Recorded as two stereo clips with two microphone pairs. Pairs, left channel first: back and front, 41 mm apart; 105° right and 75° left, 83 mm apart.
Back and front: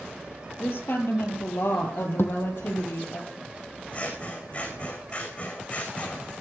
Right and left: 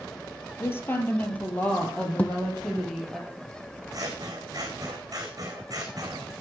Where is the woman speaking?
160° right, 3.5 m; by 3.2 s 165° left, 4.5 m.